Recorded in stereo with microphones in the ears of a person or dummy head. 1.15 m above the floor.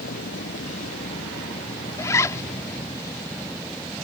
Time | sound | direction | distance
0.0 | a vehicle | 50° left (ahead or behind) | ?
2.0 | a zipper | 15° left (ahead or behind) | ?